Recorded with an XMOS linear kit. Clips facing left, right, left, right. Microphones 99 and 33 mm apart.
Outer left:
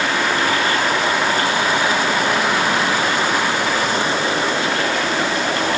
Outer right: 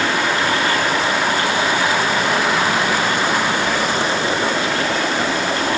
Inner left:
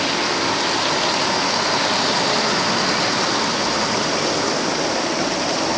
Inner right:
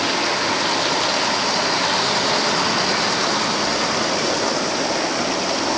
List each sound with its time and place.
Only background noise.